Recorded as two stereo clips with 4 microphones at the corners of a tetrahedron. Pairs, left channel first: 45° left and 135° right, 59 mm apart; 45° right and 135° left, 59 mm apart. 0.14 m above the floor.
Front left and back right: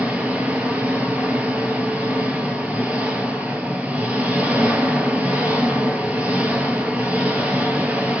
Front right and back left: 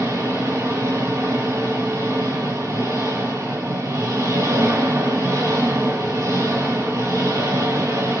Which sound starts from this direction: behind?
An engine running, at 0.0 s.